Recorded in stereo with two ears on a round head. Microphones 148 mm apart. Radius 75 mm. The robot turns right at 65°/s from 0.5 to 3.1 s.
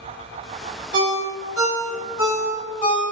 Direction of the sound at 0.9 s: 75° right (ahead or behind).